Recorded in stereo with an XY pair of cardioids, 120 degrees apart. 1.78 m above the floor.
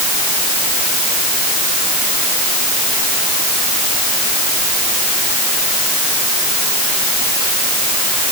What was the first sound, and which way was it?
Only background noise.